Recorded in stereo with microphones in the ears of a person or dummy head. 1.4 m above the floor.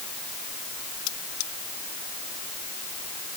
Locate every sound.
1.1 s cutlery clinking: 75° left (ahead or behind)